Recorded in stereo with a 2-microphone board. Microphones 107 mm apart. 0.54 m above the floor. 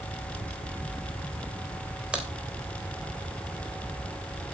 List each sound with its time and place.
2.1 s a crack: 10° right (ahead or behind), 2.5 m